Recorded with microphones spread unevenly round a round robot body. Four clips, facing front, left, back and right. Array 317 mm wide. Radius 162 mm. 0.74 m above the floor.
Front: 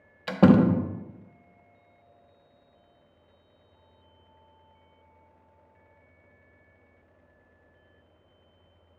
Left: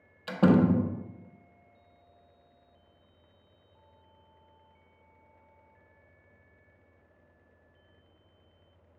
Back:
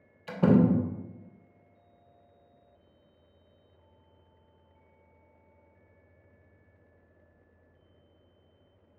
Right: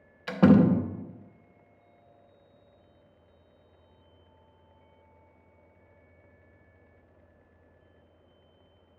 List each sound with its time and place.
0.3 s a door slam: 10° right, 0.8 m